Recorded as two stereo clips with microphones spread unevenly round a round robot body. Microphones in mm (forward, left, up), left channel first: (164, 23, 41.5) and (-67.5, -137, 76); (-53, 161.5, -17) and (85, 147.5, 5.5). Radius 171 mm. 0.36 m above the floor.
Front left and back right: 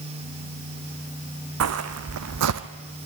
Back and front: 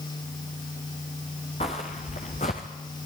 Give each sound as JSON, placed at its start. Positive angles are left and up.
{"t": 1.6, "sound": "footsteps", "azimuth_deg": -115, "distance_m": 1.5}